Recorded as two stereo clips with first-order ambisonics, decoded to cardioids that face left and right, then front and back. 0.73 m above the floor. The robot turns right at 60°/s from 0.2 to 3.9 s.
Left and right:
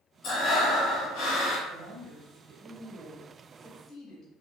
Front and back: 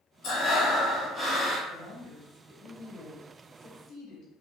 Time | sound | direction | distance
0.2 | breathing | 35° left | 1.0 m
1.7 | a woman speaking | 85° right | 0.6 m